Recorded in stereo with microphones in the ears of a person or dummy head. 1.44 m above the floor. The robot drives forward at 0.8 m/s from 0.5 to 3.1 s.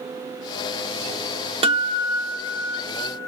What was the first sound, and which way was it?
A guitar, 35° right (ahead or behind).